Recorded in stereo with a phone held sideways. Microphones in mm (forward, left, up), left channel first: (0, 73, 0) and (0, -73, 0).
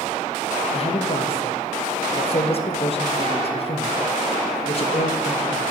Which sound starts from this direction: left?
A man speaking, at 0.7 s.